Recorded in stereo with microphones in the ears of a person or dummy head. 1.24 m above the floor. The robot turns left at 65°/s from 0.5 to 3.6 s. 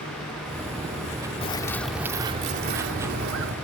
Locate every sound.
1.4 s a bird: 30° left; by 3.5 s 105° right